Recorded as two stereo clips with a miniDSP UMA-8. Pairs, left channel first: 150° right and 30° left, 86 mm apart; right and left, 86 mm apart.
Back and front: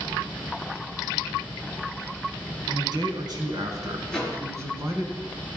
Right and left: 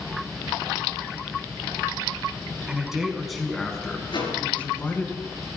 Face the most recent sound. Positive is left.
turn(degrees=-70)